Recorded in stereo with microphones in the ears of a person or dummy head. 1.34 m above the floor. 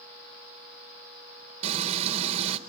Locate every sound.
1.6 s frying: 30° right (ahead or behind), 1.0 m